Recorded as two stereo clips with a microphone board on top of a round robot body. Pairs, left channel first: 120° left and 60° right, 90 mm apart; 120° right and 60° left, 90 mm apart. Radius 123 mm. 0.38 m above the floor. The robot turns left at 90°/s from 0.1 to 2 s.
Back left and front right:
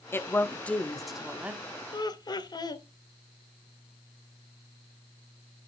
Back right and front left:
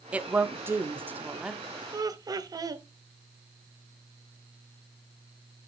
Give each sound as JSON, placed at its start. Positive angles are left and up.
{"t": 0.1, "sound": "a woman speaking", "azimuth_deg": 115, "distance_m": 1.1}
{"t": 1.9, "sound": "laughter", "azimuth_deg": 100, "distance_m": 1.6}